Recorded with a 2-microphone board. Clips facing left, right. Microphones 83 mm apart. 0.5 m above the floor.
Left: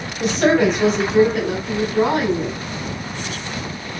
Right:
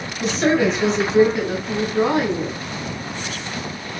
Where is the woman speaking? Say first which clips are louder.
Left 2 dB; 45° left (ahead or behind), 3 m; by 2.6 s 40° left (ahead or behind), 4 m.